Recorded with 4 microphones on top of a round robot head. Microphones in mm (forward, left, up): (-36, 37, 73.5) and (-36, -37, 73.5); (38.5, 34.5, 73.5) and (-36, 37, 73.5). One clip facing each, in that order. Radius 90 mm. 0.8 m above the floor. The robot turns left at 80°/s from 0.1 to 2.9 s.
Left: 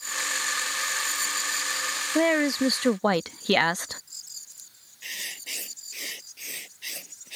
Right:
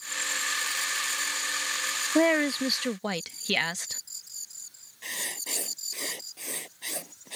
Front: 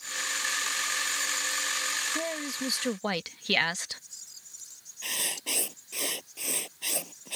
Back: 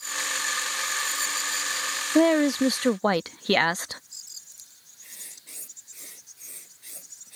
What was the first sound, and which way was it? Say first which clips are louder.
A woman speaking: left 1 dB, back 14 dB; 170° right.